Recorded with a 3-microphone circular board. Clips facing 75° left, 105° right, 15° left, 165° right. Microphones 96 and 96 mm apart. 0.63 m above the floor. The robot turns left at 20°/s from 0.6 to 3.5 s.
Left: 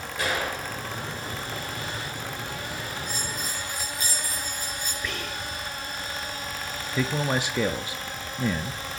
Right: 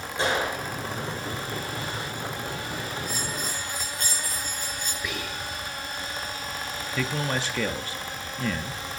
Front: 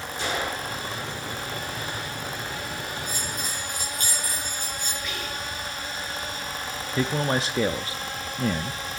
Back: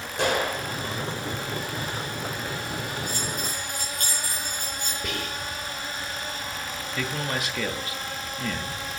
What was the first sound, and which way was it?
A gunshot, 165° right.